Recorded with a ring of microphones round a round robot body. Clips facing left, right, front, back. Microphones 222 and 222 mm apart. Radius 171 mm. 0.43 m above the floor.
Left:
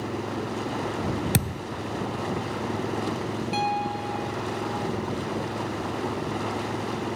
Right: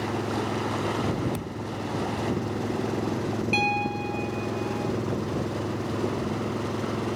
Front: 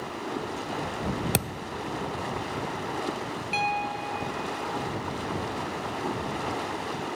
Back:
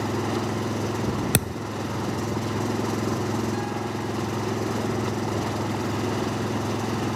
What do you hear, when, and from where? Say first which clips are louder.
0.0 s an engine running: right 2 dB, back 8 dB; 170° right
1.3 s a thud: left 4 dB, back 4 dB; 110° left
3.5 s a piano: right 1 dB, back 6 dB; 30° right